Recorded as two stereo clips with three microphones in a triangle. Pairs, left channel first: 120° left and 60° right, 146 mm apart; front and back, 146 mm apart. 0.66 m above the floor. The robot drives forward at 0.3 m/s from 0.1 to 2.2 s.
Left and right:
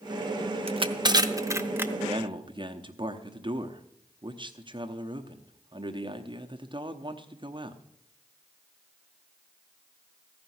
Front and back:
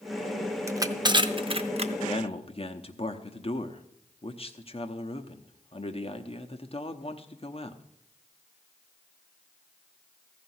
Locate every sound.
0.7 s crushing: 110° right, 0.5 m; by 1.9 s 140° right, 0.8 m
2.0 s a man speaking: 20° right, 0.9 m